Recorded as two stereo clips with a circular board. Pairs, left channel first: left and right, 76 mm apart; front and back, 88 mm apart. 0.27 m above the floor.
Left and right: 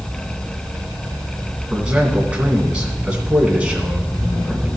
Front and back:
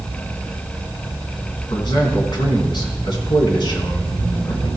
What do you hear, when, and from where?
1.7 s a man speaking: 15° right, 2.5 m